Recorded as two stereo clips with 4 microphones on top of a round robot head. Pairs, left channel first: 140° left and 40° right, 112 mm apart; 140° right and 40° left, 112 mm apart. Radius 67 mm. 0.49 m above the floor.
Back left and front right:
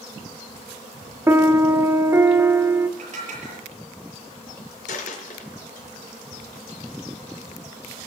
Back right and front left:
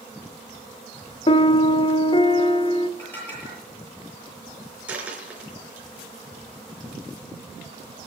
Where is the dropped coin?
120° left, 4 m.